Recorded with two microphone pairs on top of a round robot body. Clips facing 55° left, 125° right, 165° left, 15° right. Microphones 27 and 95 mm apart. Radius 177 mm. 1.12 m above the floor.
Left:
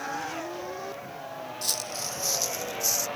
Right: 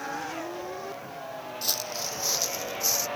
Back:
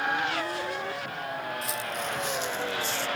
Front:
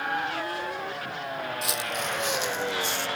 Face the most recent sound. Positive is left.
turn(degrees=-55)